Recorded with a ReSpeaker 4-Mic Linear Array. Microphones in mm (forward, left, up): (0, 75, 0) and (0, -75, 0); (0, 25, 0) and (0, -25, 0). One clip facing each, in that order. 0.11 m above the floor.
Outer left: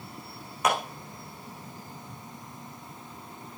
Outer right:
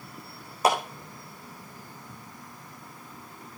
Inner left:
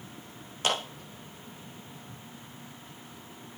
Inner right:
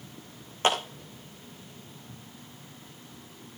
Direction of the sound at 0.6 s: 30° right (ahead or behind).